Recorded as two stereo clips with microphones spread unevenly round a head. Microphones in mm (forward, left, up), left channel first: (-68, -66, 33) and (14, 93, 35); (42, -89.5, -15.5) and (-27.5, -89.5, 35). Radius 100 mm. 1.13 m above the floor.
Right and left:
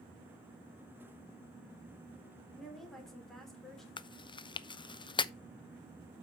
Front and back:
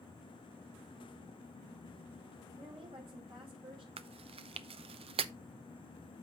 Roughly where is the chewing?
Behind.